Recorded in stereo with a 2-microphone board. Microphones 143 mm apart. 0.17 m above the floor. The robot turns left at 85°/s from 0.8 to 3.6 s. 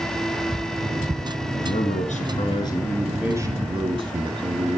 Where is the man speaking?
130° left, 2.5 m; by 4.8 s 45° right, 2.5 m.